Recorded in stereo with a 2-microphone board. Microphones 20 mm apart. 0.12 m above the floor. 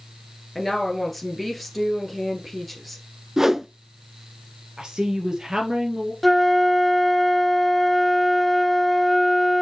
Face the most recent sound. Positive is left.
turn(degrees=5)  # may be behind; listen again after turning